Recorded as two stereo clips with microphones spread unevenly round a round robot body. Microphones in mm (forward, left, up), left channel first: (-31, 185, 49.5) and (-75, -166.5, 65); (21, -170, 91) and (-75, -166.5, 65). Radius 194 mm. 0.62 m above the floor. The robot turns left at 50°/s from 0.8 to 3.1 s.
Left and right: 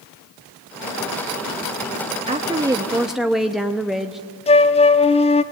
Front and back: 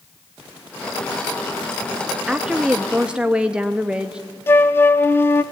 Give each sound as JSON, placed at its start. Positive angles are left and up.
{"t": 2.3, "sound": "a woman speaking", "azimuth_deg": -150, "distance_m": 0.7}
{"t": 4.5, "sound": "a flute", "azimuth_deg": 60, "distance_m": 0.5}